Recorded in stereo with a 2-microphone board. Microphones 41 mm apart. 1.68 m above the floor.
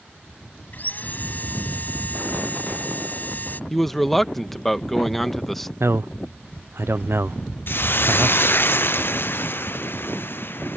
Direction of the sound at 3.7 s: 5° left (ahead or behind).